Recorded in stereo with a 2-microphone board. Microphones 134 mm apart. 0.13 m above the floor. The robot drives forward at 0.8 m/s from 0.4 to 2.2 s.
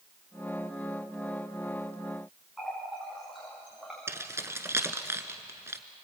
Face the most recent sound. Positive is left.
turn(degrees=-20)  # may be behind; listen again after turning